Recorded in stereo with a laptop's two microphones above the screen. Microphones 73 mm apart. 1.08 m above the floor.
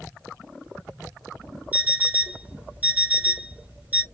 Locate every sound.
1.7 s an alarm clock: 25° right (ahead or behind), 1.0 m